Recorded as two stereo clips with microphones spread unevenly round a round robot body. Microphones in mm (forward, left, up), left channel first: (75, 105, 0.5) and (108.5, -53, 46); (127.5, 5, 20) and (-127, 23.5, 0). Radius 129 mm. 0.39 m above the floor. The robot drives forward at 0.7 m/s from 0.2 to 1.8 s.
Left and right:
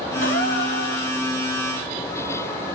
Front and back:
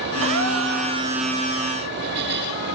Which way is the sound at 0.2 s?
140° left.